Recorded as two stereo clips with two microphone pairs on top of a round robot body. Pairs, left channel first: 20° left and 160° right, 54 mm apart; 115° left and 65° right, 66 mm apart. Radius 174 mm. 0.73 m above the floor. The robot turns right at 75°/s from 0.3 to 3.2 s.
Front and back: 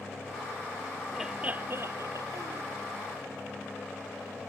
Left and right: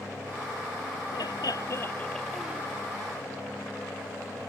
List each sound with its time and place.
1.1 s laughter: 115° left; by 2.6 s 135° right